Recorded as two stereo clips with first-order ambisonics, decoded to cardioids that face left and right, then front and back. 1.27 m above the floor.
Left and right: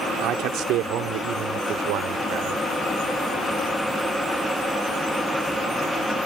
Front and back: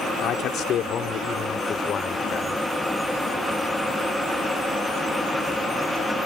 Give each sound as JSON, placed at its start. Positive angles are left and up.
{"t": 0.2, "sound": "a man speaking", "azimuth_deg": -45}